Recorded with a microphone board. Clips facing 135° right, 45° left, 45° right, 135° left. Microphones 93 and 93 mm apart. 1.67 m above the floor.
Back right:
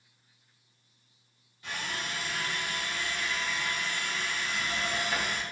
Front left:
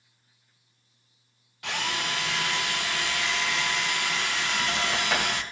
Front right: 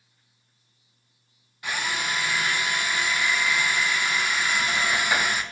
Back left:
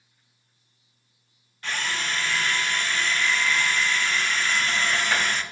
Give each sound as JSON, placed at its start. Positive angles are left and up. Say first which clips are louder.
{"t": 1.6, "sound": "a drill", "louder": "front left 6 dB, front right 1 dB", "azimuth_deg": 35, "distance_m": 0.5}